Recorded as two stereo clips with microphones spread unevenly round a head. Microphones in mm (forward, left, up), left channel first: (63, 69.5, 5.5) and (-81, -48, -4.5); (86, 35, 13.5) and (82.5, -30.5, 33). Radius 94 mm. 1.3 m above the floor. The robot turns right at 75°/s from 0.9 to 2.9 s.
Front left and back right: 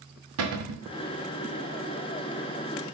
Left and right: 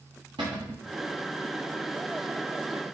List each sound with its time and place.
0.4 s a cupboard door: 145° right, 0.7 m